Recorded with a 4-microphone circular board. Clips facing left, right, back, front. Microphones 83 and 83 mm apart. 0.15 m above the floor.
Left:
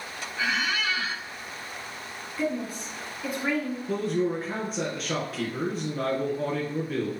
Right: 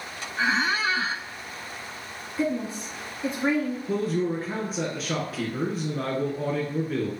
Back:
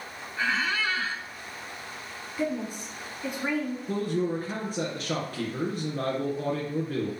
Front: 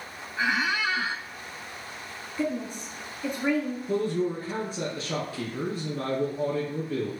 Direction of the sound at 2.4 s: 115° right.